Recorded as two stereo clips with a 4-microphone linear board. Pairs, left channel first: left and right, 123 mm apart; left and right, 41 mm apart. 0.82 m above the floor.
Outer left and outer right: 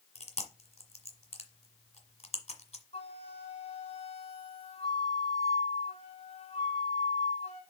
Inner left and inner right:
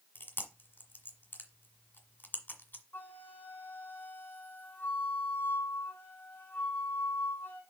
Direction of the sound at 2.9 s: 55° left (ahead or behind).